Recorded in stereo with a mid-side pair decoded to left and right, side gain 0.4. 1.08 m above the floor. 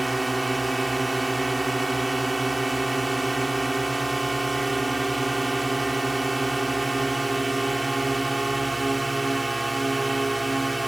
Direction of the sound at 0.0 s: 20° right.